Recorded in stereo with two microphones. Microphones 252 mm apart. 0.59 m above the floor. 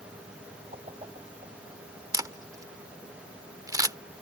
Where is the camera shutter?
15° right (ahead or behind).